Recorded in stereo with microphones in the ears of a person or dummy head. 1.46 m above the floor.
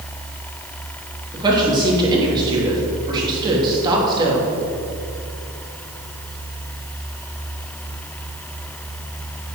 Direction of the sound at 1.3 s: 25° right (ahead or behind).